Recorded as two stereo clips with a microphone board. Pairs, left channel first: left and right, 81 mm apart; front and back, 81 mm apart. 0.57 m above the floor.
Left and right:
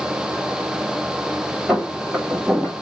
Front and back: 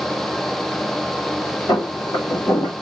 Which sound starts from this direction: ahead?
Footsteps, at 1.7 s.